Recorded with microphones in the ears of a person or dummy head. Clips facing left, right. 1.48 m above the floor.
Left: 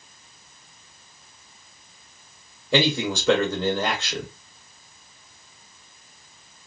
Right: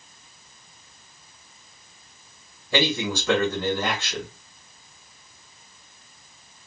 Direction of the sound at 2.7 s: 20° left (ahead or behind).